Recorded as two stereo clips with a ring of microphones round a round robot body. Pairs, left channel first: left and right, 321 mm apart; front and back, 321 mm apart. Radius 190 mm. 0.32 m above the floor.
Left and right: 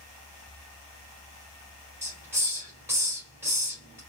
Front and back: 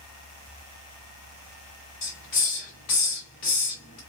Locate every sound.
2.0 s a hiss: 10° right, 1.6 m